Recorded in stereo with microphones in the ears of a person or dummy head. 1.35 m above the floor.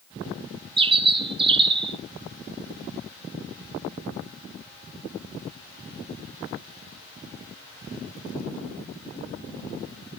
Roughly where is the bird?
Right.